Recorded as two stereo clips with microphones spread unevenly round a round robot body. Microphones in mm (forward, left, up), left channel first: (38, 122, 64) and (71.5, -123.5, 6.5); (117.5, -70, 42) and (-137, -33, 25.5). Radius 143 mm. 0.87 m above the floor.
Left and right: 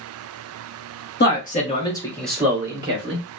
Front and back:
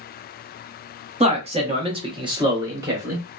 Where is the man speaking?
135° left, 1.0 m; by 3.2 s 115° right, 1.1 m.